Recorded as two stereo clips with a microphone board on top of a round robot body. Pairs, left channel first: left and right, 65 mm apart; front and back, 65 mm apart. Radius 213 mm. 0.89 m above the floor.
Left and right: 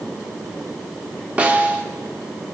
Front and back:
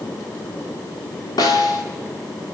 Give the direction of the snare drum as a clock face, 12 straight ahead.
1 o'clock.